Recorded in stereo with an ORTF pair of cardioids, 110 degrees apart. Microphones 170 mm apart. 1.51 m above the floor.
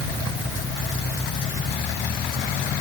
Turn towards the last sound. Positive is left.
No sound to turn to.